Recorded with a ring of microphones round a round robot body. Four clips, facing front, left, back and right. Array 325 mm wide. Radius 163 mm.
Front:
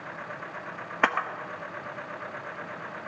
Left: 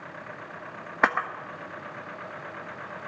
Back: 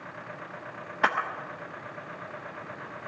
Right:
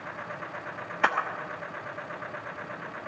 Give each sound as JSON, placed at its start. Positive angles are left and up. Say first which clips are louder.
{"t": 1.0, "sound": "a camera shutter", "louder": "left 2 dB, front 1 dB", "azimuth_deg": 60, "distance_m": 0.8}